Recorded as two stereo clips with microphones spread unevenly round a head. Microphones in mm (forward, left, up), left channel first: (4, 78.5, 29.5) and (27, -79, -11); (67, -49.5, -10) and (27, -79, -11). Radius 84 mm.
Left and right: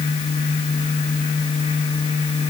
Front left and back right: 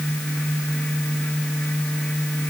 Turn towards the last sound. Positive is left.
No sound to turn to.